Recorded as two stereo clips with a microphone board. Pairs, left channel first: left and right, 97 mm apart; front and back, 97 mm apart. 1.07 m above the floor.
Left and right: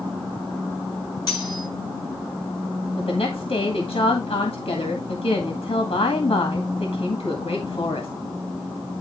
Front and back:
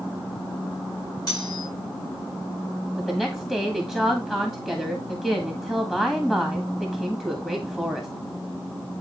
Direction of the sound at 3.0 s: 85° left.